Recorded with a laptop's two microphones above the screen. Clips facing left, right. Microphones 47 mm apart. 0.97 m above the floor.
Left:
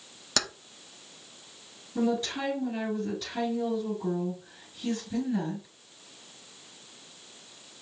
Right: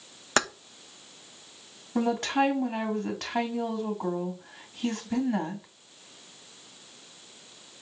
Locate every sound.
0.4 s keys jangling: 35° right (ahead or behind), 0.5 m
1.9 s a woman speaking: 70° right (ahead or behind), 2.5 m